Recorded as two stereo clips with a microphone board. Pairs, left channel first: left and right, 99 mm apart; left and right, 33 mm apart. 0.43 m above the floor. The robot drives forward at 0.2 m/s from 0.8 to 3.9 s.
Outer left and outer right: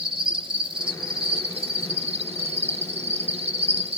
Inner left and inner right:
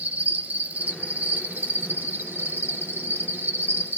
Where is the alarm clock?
No alarm clock in this recording.